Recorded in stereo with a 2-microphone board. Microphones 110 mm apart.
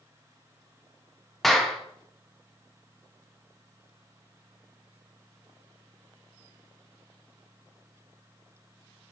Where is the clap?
Centre (ahead or behind), 0.6 m.